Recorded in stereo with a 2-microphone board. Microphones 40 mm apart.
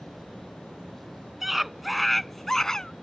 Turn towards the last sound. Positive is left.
turn(degrees=15)  # may be behind; listen again after turning